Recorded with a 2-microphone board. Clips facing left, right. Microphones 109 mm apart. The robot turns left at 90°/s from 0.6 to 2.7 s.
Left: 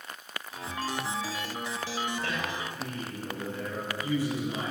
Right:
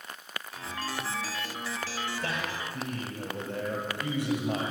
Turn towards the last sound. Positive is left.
turn(degrees=-85)